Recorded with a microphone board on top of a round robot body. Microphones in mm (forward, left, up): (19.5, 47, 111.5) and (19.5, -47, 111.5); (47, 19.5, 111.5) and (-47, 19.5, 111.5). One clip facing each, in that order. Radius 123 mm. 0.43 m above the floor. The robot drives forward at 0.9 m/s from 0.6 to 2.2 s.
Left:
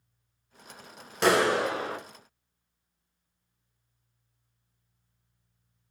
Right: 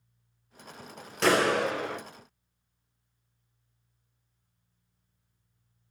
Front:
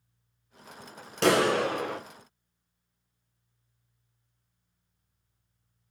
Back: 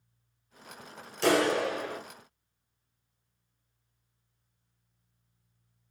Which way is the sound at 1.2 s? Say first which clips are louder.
Left 1 dB, front 2 dB; 5° left.